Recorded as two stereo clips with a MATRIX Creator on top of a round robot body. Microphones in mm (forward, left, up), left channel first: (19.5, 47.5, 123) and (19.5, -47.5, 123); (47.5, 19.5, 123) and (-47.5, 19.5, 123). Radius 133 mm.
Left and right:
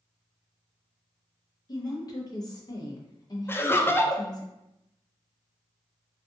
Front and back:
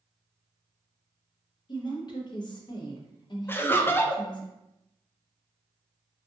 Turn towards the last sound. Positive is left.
turn(degrees=45)